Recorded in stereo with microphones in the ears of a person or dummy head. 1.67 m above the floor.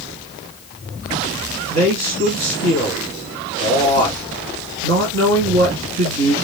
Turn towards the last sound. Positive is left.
turn(degrees=-80)